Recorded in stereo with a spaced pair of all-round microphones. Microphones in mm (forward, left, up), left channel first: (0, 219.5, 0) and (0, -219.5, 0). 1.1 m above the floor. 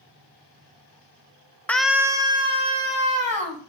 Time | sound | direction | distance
1.7 | a scream | 5° left (ahead or behind) | 0.7 m